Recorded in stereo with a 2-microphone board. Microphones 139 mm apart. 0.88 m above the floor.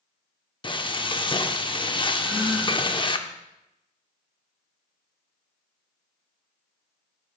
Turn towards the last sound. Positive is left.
turn(degrees=-5)  # may be behind; listen again after turning